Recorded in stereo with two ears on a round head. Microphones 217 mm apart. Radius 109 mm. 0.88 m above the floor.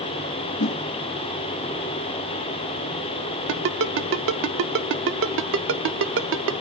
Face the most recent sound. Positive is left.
turn(degrees=-55)  # may be behind; listen again after turning